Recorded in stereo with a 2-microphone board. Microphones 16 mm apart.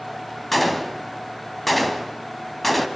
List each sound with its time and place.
0.5 s a gunshot: 5° left (ahead or behind), 2.5 m